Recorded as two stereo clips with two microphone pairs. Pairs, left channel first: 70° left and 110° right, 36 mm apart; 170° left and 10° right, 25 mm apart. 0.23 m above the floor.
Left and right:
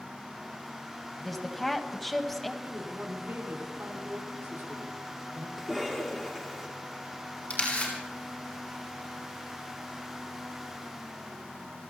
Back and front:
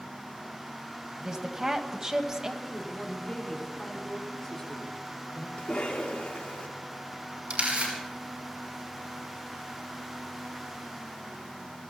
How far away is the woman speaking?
About 1.5 m.